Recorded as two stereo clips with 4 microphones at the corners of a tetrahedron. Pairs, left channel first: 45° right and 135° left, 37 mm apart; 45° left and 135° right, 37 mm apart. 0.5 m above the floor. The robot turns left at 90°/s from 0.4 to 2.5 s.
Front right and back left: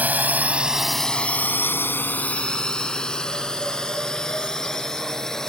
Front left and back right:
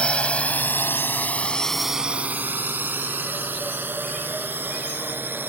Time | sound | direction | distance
0.0 | a drone | 100° left | ?